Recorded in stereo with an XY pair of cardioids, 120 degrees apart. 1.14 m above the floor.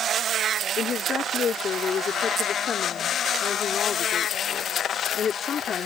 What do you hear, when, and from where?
0.8 s a woman speaking: 40° left